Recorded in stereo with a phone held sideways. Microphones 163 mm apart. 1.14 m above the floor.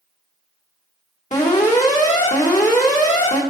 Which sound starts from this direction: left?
An alarm, at 1.3 s.